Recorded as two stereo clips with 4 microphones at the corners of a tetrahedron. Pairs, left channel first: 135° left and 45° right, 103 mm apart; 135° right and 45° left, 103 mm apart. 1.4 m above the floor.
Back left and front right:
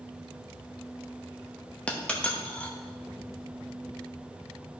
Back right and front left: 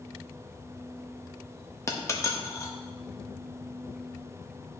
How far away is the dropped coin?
About 0.7 m.